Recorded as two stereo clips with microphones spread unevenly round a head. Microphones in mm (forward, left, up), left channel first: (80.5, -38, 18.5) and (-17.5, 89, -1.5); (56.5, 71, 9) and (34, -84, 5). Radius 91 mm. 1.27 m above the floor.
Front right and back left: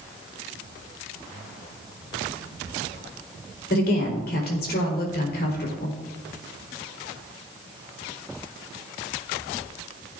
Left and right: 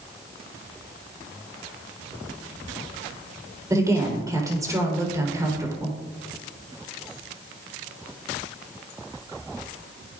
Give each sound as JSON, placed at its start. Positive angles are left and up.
{"t": 3.7, "sound": "a woman speaking", "azimuth_deg": -30, "distance_m": 4.5}